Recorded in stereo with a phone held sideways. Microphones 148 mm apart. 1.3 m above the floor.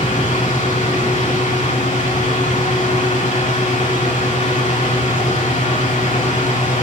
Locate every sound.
0.0 s a fan: 55° left (ahead or behind), 3.5 m